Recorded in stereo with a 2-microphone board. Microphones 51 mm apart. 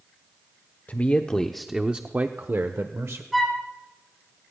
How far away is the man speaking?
About 1.0 m.